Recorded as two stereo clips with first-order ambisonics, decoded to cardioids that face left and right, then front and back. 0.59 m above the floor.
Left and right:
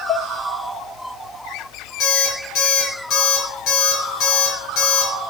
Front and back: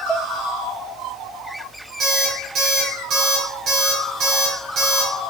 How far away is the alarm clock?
About 4.5 m.